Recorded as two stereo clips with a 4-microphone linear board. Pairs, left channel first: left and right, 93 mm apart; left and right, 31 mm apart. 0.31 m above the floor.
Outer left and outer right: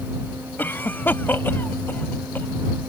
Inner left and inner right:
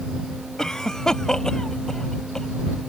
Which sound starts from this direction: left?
A cough, at 0.6 s.